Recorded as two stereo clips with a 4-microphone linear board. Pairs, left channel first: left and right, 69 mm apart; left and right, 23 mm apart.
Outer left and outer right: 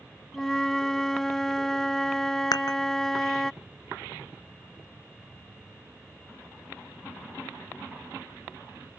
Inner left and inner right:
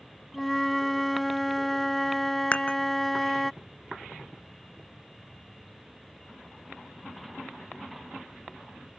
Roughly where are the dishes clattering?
Left.